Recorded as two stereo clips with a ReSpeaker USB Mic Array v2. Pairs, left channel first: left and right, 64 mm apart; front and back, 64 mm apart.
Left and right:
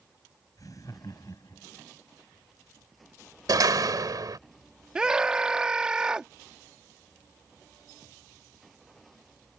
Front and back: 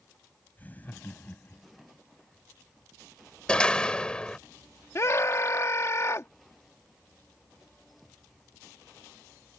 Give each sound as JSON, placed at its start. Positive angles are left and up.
{"t": 0.6, "sound": "laughter", "azimuth_deg": 60}
{"t": 3.5, "sound": "a door slam", "azimuth_deg": -75}
{"t": 5.0, "sound": "a scream", "azimuth_deg": -20}